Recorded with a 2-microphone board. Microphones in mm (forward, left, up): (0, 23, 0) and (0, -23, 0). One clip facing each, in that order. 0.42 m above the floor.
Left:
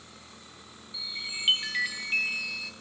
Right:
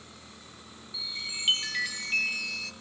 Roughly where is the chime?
Centre.